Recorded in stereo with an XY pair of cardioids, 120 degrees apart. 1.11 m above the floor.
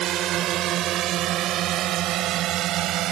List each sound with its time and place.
0.0 s a drone: 70° right